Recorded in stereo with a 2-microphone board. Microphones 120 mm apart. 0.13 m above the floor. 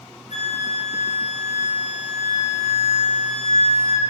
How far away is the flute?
About 1.3 m.